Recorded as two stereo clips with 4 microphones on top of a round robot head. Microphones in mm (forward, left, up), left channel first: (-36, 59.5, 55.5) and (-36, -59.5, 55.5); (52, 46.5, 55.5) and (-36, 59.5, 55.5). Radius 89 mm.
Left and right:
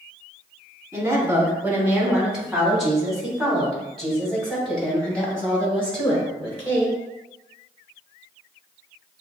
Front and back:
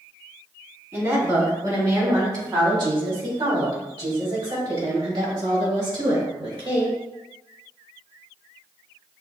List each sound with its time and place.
0.9 s a woman speaking: 145° right, 1.7 m; by 7.0 s 165° left, 4.5 m